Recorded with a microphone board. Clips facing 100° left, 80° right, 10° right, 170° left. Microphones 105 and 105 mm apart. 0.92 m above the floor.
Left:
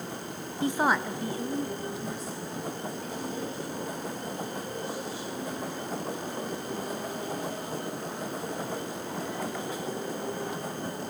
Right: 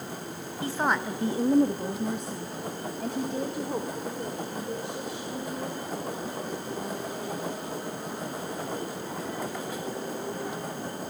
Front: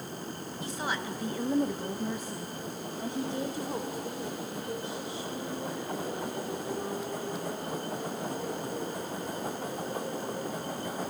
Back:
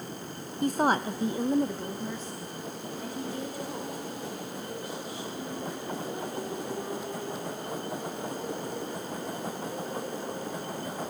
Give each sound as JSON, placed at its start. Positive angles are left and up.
{"t": 0.6, "sound": "a woman speaking", "azimuth_deg": 160, "distance_m": 0.7}